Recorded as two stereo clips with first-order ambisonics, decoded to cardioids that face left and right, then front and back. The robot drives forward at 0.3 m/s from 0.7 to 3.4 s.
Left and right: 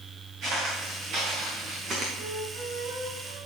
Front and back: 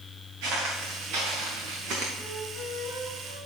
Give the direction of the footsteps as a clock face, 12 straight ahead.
5 o'clock.